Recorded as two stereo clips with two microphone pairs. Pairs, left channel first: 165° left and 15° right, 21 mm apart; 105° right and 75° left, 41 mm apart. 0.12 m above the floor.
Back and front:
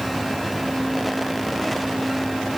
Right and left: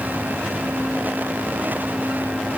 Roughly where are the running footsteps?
No running footsteps in this recording.